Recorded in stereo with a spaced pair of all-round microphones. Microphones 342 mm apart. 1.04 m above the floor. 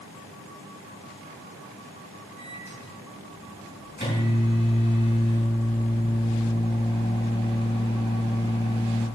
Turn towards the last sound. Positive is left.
turn(degrees=30)  # may be behind; listen again after turning